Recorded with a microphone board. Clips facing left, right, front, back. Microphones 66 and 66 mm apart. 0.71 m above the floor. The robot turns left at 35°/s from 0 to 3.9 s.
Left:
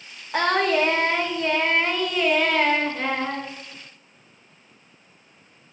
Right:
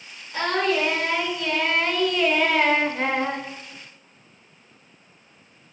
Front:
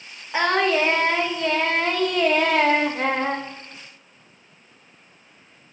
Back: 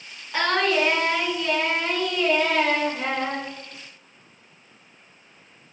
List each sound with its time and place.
0.3 s singing: 65° left, 0.6 m; by 3.5 s 45° right, 0.6 m